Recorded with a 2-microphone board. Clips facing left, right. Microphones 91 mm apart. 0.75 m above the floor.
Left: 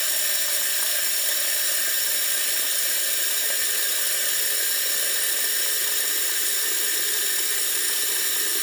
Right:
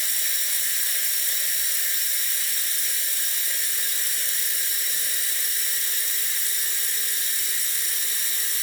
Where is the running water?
65° left (ahead or behind), 0.9 m.